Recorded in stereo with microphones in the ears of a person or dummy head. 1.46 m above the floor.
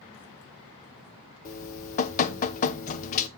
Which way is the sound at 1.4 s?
45° left (ahead or behind).